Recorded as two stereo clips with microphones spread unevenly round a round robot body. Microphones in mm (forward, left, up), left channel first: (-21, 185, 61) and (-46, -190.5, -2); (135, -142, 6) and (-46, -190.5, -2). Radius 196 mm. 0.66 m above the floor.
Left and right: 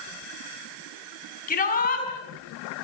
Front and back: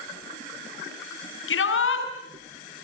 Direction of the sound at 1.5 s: 15° left.